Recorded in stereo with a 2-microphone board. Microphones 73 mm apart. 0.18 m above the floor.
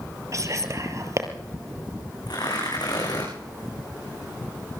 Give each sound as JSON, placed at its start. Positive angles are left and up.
{"t": 0.3, "sound": "whispering", "side_deg": -45, "distance_m": 3.5}
{"t": 2.3, "sound": "tearing paper", "side_deg": 65, "distance_m": 10.0}